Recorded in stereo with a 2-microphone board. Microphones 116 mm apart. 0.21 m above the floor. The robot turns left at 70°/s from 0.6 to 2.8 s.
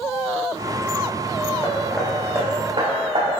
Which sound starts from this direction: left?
Hammering, at 1.6 s.